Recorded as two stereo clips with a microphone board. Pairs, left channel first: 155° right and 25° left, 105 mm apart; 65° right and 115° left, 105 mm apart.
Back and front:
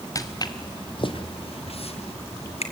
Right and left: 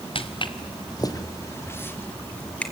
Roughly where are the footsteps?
Right.